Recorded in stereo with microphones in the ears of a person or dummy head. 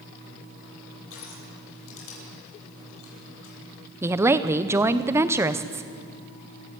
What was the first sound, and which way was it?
Crushing, 80° left.